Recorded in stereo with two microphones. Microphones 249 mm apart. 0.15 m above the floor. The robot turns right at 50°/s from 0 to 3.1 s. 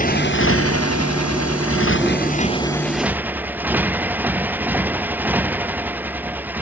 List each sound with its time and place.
0.0 s a motorcycle: 30° left (ahead or behind); by 6.6 s 5° right (ahead or behind)